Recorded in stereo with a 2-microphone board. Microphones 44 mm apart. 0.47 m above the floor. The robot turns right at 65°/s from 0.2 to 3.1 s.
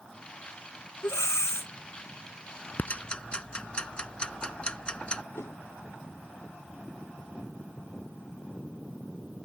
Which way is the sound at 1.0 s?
70° left.